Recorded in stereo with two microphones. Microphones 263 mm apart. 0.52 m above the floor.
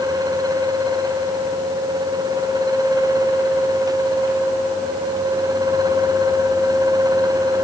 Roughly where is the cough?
I don't hear a cough.